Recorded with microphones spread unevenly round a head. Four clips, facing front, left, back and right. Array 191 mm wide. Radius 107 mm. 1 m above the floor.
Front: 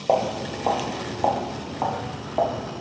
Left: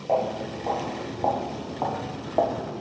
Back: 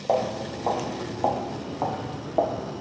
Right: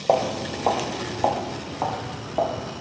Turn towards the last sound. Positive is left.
turn(degrees=130)